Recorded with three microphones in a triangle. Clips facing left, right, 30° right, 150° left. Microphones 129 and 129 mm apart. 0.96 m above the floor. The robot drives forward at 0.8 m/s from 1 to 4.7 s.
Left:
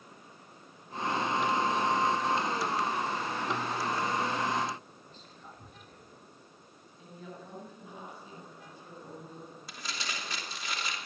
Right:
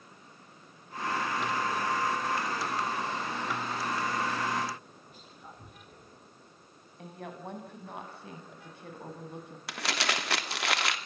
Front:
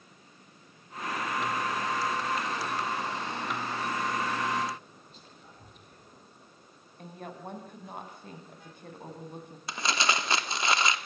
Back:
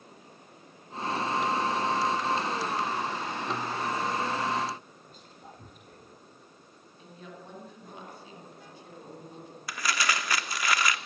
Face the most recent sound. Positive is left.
turn(degrees=-95)